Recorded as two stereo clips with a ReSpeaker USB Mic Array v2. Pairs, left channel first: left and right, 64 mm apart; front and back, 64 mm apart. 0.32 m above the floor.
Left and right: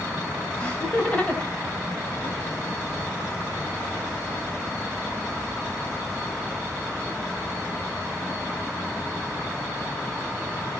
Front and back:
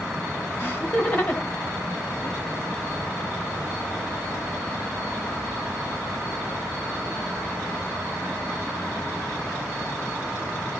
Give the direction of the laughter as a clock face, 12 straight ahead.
11 o'clock.